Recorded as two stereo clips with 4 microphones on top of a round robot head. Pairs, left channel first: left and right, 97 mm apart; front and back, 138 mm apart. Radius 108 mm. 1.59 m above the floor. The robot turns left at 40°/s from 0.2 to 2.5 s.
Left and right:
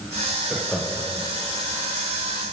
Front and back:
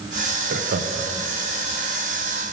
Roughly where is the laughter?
Behind.